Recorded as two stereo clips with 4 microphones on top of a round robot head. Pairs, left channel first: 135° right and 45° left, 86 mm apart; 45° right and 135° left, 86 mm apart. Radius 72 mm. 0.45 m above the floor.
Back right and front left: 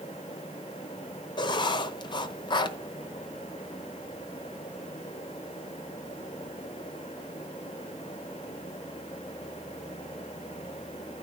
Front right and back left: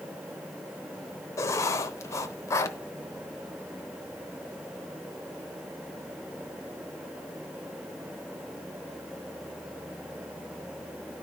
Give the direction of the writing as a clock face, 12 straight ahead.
3 o'clock.